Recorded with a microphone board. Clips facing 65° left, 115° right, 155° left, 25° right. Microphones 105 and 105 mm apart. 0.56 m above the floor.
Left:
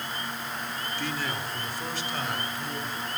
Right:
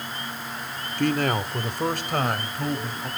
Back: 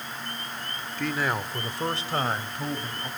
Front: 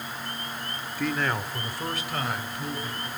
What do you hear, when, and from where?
1.0 s a man speaking: 105° right, 1.3 m; by 3.1 s 155° right, 4 m